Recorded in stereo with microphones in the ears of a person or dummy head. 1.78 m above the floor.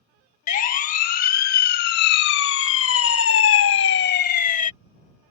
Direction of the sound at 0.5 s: 45° left (ahead or behind).